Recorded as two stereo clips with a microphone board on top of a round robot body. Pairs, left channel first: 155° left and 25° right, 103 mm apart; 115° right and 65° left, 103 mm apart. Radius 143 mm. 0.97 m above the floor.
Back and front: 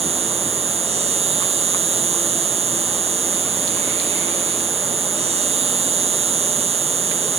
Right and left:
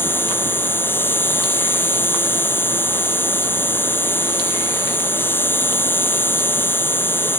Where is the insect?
40° right.